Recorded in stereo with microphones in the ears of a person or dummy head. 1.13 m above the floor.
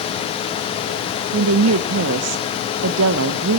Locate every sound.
1.3 s a woman speaking: 80° right, 0.6 m